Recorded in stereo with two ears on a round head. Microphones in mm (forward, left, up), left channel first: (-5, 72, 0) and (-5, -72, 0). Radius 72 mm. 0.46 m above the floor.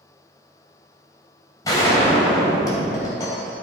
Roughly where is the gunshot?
Left.